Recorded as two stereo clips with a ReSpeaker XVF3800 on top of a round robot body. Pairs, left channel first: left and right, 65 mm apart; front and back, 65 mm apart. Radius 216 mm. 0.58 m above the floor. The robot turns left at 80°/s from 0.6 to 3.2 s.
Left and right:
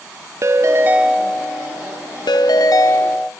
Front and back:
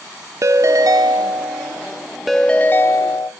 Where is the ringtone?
135° right, 0.5 m; by 3.3 s 20° left, 0.5 m.